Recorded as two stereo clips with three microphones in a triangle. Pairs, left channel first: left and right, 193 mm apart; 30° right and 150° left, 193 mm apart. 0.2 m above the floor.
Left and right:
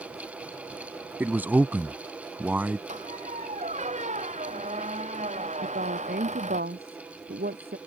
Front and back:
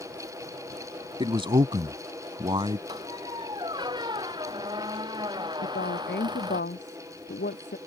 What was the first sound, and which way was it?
A man speaking, 165° right.